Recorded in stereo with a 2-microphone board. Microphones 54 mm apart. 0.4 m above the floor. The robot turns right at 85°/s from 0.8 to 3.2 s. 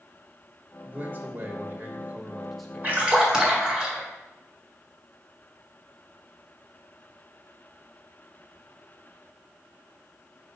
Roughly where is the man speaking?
Behind right.